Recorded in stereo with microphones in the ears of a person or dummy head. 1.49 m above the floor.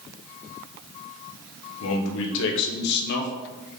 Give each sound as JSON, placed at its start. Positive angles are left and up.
{"t": 1.8, "sound": "a man speaking", "side_deg": 80, "distance_m": 1.3}